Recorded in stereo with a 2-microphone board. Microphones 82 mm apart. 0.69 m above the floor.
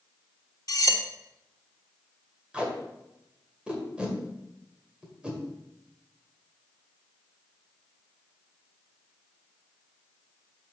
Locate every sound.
0.7 s cutlery clinking: 50° left (ahead or behind), 0.8 m
2.5 s tape being pulled: 15° right (ahead or behind), 1.7 m